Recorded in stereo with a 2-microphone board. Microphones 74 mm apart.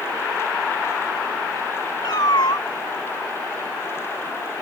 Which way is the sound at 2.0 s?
70° left (ahead or behind).